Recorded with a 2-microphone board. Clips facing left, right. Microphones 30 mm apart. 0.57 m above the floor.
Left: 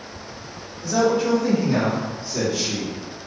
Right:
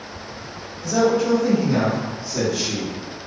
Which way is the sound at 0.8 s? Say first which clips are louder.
Right 1 dB; 15° left (ahead or behind).